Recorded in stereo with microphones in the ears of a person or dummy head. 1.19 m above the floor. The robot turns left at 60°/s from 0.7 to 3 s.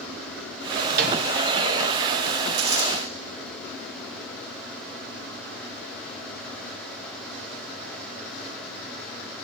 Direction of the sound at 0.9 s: 50° right (ahead or behind).